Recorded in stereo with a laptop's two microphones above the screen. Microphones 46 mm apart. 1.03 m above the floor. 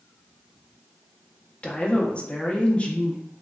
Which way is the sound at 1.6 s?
20° left (ahead or behind).